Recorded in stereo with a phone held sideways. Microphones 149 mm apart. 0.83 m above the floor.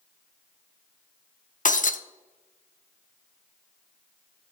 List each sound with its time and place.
1.6 s breaking glass: 60° left (ahead or behind), 0.6 m